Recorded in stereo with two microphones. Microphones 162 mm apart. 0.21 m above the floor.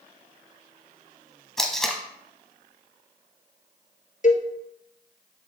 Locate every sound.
1.6 s tape being pulled: centre (ahead or behind), 1.2 m
4.2 s a cowbell: 50° left (ahead or behind), 1.0 m